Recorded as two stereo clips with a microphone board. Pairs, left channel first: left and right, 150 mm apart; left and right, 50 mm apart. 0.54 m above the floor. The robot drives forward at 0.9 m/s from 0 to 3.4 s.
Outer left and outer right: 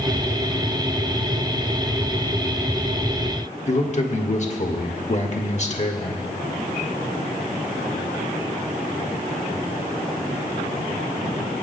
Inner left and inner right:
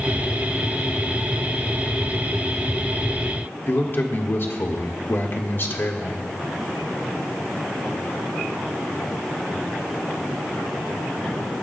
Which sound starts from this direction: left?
A man speaking, at 3.7 s.